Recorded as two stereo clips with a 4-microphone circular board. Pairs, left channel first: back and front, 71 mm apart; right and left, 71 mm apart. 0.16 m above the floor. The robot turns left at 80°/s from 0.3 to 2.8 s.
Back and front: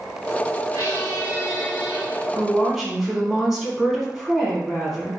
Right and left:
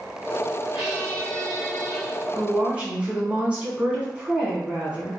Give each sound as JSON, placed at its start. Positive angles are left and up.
{"t": 0.7, "sound": "a squeak", "azimuth_deg": 170, "distance_m": 1.9}
{"t": 2.3, "sound": "a woman speaking", "azimuth_deg": 110, "distance_m": 1.2}